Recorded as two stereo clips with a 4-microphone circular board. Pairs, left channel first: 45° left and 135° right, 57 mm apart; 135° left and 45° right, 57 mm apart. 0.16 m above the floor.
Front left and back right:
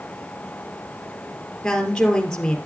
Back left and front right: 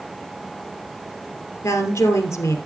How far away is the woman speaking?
About 3 m.